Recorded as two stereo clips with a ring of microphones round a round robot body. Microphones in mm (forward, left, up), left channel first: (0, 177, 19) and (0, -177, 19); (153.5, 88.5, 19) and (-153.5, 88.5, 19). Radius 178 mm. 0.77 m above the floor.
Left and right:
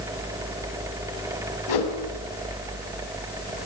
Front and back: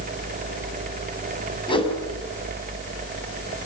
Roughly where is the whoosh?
Left.